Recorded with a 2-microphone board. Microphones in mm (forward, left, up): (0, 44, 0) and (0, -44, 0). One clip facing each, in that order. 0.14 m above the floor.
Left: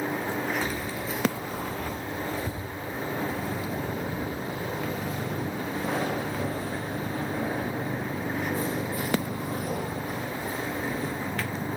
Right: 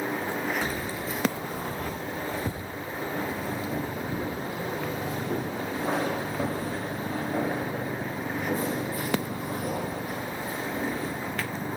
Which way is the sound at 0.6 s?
35° right (ahead or behind).